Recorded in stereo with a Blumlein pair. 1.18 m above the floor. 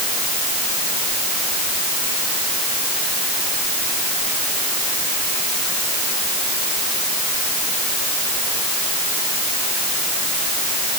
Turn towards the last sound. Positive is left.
No sound to turn to.